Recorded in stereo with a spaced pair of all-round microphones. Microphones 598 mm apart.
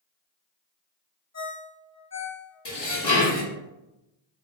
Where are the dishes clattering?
40° left (ahead or behind), 0.8 m.